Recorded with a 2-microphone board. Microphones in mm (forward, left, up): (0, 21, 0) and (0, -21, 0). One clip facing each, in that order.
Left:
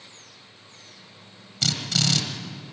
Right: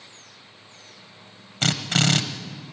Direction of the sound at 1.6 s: 40° right (ahead or behind).